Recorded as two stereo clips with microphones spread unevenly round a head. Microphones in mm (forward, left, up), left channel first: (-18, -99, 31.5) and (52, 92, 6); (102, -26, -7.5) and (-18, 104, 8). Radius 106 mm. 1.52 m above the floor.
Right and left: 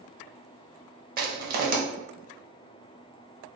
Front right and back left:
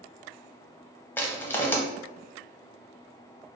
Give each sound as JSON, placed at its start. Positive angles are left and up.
{"t": 1.2, "sound": "crushing", "azimuth_deg": 30, "distance_m": 0.8}